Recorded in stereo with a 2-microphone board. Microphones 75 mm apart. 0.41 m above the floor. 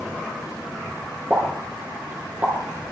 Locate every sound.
1.3 s a pop: 25° right (ahead or behind), 4 m